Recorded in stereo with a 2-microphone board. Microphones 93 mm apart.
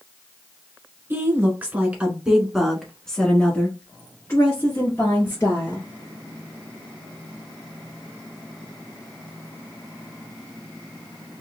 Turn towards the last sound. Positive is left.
turn(degrees=40)  # may be behind; listen again after turning